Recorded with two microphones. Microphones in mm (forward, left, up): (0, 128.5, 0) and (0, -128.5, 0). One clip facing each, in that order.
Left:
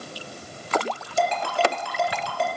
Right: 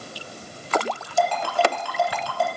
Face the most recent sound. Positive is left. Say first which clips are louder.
# right 1 dB
turn(degrees=25)  # may be behind; listen again after turning